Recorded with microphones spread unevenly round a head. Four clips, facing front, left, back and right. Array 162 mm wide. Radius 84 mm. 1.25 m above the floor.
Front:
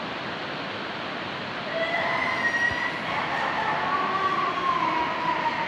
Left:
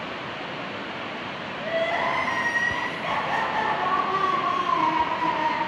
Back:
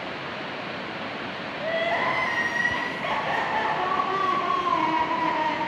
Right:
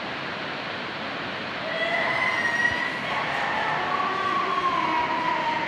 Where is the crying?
170° left, 6 m.